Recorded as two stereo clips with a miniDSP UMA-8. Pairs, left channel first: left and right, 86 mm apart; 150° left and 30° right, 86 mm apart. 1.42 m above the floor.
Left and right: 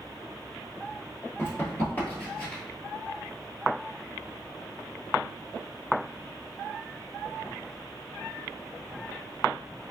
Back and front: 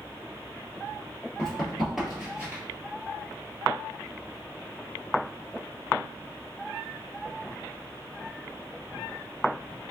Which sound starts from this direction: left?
Running footsteps, at 1.4 s.